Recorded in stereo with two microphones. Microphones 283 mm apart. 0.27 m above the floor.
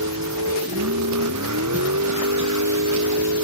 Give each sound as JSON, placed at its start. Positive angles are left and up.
{"t": 0.0, "sound": "a vehicle", "side_deg": -85}